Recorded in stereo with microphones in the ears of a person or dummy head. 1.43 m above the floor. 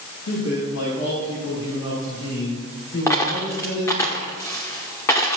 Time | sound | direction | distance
0.3 | a man speaking | 85° left | 3 m
3.1 | a dropped coin | 10° left (ahead or behind) | 1.2 m